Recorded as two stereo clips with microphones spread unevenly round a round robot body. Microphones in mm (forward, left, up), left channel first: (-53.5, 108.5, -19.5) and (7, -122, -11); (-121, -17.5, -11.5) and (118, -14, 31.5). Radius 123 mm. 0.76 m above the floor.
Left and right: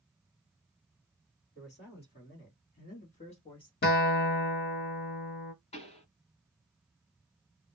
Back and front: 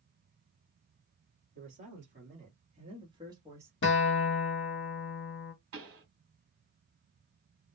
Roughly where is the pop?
Ahead left.